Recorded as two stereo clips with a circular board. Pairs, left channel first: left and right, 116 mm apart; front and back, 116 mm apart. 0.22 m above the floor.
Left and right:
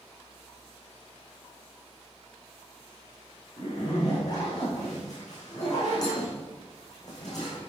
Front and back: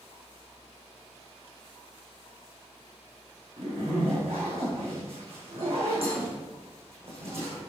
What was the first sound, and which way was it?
A zipper, 145° left.